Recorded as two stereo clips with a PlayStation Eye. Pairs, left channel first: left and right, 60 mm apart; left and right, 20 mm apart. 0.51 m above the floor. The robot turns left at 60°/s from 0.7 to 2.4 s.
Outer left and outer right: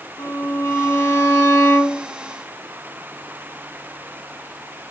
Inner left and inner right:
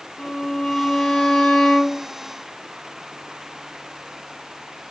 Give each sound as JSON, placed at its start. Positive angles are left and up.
{"t": 0.2, "sound": "a violin", "azimuth_deg": 95, "distance_m": 0.7}